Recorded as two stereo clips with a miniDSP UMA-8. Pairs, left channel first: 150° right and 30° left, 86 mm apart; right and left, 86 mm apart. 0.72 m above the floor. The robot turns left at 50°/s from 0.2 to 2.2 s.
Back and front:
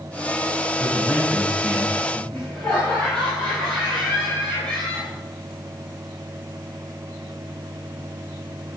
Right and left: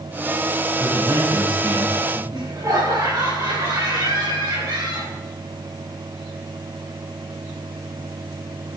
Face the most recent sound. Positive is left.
turn(degrees=130)